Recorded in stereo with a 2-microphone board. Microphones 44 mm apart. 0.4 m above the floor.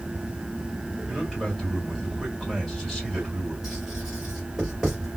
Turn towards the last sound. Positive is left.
turn(degrees=-10)  # may be behind; listen again after turning